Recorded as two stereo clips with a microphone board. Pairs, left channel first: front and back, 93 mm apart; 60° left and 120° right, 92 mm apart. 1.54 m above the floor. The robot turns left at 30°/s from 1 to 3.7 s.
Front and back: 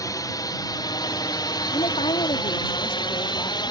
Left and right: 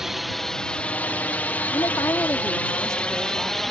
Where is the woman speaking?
15° left; by 3.6 s 45° right.